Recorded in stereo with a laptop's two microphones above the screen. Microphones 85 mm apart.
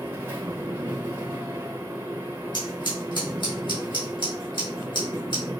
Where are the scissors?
60° left (ahead or behind), 3 m.